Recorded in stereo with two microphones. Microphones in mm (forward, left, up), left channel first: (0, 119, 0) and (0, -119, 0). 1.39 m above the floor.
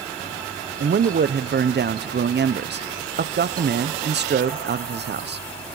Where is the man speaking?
45° right (ahead or behind), 0.7 m.